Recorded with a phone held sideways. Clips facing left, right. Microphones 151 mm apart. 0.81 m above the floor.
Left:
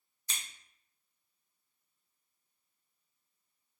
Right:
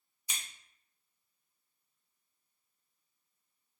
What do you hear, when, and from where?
0.3 s scissors: 10° right (ahead or behind), 0.6 m